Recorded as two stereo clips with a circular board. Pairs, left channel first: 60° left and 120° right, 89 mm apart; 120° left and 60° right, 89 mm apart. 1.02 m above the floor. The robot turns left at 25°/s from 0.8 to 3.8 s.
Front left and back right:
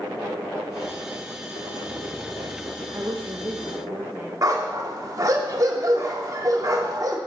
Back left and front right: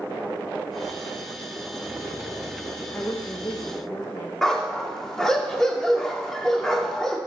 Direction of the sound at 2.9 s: 170° right.